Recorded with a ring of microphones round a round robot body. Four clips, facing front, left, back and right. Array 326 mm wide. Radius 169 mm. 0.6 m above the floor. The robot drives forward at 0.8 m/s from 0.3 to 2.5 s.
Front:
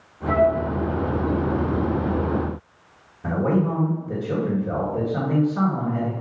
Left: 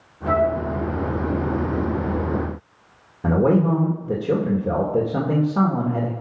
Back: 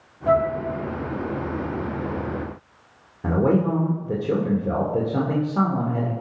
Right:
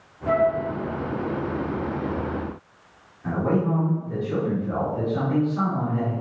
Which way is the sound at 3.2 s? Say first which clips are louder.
Left 6 dB, back 2 dB; 115° left.